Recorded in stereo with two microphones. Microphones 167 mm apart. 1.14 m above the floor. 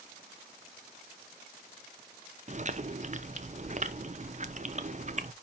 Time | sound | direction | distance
2.5 | chewing | 45° right (ahead or behind) | 0.7 m